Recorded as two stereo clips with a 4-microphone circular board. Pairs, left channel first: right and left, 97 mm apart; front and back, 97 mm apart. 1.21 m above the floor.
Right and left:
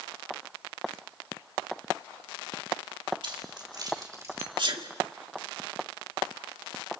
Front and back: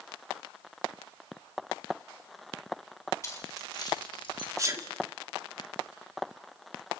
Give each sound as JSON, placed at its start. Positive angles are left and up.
{"t": 3.2, "sound": "keys jangling", "azimuth_deg": 60, "distance_m": 3.0}
{"t": 4.6, "sound": "a sneeze", "azimuth_deg": 125, "distance_m": 2.0}